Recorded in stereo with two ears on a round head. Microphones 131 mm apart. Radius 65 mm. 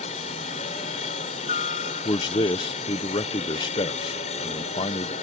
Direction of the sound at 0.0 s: 45° left (ahead or behind).